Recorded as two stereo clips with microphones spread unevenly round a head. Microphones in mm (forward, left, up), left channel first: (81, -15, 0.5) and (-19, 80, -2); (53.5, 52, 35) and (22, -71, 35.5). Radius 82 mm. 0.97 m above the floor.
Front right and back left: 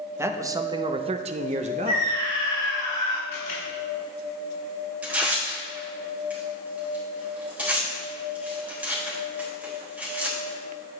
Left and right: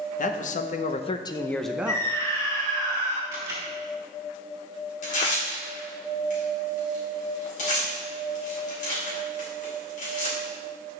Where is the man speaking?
65° left, 0.9 m; by 2.2 s 170° right, 0.7 m.